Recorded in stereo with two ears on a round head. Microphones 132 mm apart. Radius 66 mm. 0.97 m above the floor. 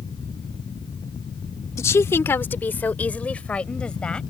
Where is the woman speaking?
20° left (ahead or behind); by 4.2 s 5° left (ahead or behind).